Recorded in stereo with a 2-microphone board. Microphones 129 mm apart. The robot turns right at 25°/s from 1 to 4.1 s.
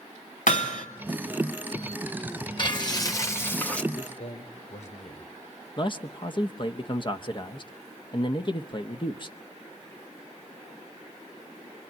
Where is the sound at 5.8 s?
40° left (ahead or behind), 1.0 m.